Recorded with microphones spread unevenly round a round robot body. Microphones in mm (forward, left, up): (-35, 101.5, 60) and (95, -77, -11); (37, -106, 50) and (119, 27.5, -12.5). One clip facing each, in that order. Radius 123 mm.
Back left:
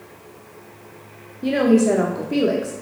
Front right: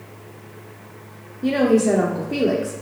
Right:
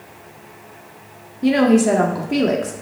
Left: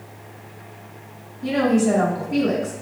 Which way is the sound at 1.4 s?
135° right.